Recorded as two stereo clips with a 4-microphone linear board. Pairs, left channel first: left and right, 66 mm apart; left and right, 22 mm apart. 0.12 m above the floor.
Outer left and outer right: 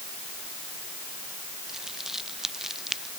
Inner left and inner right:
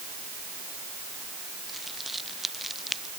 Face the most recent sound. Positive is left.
turn(degrees=-5)  # may be behind; listen again after turning